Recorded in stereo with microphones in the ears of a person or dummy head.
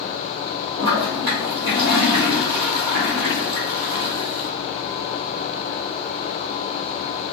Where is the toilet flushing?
50° right (ahead or behind), 1.9 m.